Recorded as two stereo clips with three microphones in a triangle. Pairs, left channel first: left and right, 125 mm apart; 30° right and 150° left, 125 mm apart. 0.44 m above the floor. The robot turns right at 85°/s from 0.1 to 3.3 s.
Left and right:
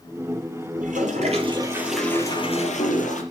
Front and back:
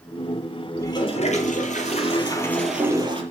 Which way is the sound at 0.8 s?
100° right.